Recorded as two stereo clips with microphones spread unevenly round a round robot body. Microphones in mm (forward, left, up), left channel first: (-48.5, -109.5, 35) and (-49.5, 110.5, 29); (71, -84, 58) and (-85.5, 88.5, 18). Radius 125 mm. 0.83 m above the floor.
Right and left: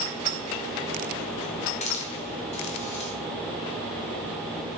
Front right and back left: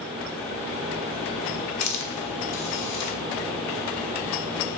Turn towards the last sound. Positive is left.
turn(degrees=-25)